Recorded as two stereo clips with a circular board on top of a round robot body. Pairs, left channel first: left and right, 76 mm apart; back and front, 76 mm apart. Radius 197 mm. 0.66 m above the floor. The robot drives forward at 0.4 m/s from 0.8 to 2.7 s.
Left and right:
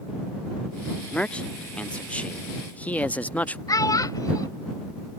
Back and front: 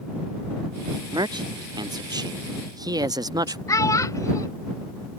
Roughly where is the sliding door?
I don't hear a sliding door.